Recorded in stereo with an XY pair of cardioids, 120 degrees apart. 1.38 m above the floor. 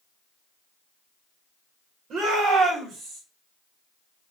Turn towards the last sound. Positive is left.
turn(degrees=-65)